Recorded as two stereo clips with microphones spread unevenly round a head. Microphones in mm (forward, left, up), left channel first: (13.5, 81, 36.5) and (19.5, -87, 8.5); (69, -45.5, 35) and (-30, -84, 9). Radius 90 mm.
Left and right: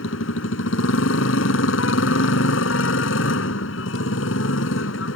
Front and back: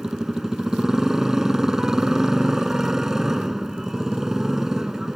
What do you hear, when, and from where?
0.0 s a motorcycle: 110° left